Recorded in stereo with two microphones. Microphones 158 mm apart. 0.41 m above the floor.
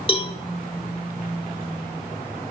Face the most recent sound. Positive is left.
turn(degrees=35)  # may be behind; listen again after turning